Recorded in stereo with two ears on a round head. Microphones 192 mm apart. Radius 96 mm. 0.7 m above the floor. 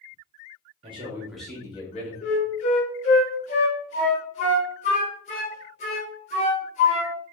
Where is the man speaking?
25° right (ahead or behind), 1.0 m; by 2.1 s 35° left (ahead or behind), 1.1 m.